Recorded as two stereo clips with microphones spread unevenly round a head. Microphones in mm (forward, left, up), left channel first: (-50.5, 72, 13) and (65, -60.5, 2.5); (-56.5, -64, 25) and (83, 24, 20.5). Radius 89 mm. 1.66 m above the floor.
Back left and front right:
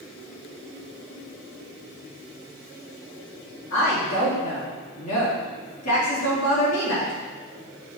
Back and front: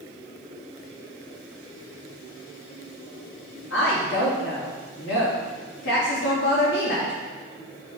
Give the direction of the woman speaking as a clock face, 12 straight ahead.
6 o'clock.